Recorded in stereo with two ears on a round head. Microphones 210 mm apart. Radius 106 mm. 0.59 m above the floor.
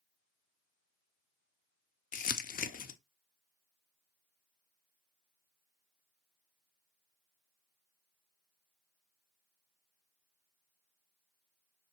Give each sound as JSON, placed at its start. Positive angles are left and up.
{"t": 2.1, "sound": "crumpling", "side_deg": 35, "distance_m": 0.6}